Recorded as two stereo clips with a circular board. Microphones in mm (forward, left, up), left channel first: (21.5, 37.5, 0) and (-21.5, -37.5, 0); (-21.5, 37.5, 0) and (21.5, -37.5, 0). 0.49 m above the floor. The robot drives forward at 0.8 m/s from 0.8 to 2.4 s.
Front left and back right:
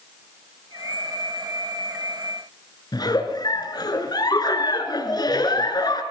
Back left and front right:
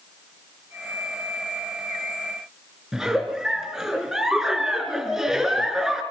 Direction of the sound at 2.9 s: 25° left.